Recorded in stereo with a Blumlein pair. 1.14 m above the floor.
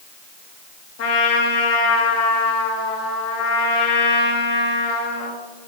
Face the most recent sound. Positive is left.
turn(degrees=50)